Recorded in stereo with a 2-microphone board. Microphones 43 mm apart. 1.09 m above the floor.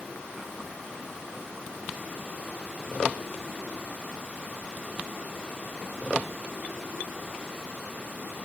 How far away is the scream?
I don't hear a scream.